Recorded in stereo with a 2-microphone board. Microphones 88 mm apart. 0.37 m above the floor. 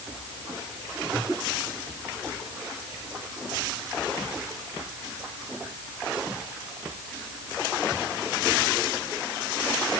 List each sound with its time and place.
Only background noise.